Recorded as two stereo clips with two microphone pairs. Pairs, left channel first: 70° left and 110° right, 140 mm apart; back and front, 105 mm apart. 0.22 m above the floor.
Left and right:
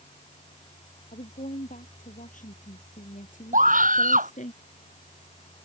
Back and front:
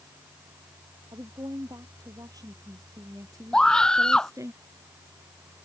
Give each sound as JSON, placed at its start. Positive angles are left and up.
{"t": 1.1, "sound": "a woman speaking", "azimuth_deg": 55}
{"t": 3.5, "sound": "a scream", "azimuth_deg": -95}